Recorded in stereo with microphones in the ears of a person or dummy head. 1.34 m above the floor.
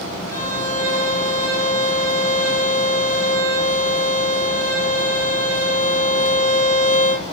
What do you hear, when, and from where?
0.3 s a violin: 25° left (ahead or behind), 4.5 m